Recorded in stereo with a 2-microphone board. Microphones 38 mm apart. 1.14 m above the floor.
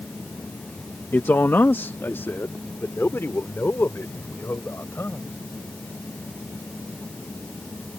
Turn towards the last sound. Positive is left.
turn(degrees=85)